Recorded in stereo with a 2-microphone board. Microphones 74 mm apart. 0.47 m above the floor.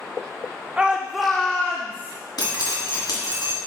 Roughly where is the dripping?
Left.